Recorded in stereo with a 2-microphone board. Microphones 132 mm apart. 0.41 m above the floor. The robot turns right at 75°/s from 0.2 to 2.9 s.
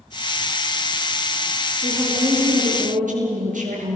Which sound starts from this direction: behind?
A woman speaking, at 1.8 s.